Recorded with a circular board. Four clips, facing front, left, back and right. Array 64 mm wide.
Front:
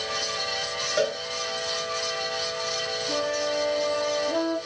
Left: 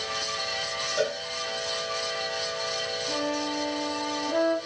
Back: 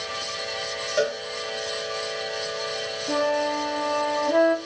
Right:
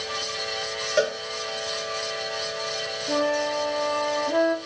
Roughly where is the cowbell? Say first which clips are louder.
Right 5 dB, back 1 dB; right.